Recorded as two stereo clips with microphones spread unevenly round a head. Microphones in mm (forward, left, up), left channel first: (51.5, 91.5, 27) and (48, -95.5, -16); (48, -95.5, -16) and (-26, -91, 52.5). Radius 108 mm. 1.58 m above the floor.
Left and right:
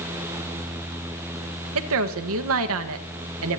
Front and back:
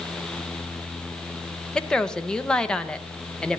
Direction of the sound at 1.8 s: 95° right.